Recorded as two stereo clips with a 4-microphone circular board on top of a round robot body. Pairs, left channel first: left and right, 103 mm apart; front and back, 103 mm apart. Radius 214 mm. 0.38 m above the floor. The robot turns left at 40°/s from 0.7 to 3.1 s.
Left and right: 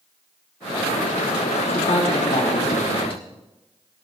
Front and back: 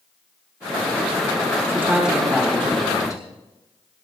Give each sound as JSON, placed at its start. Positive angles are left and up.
{"t": 1.7, "sound": "a man speaking", "azimuth_deg": 110, "distance_m": 3.5}